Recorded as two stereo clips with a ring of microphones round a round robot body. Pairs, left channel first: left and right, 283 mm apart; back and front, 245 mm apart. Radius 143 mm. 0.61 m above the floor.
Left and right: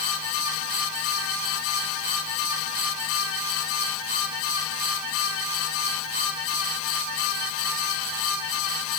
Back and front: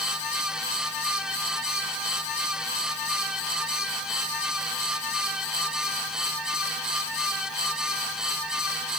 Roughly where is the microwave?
I don't hear a microwave.